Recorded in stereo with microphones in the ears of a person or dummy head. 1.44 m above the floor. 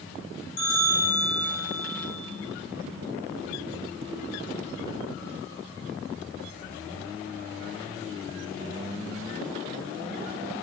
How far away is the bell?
About 1.6 m.